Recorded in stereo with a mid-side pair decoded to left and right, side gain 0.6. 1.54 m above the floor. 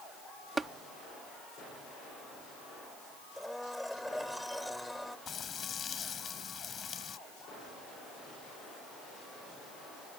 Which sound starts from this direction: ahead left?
Frying, at 5.3 s.